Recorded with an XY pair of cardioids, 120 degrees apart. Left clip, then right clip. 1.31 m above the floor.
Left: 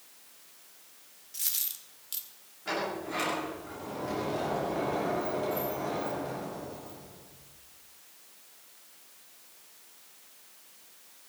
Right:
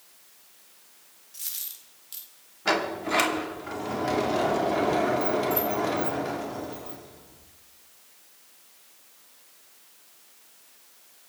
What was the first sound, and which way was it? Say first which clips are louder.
A dropped coin: left 3 dB; 25° left.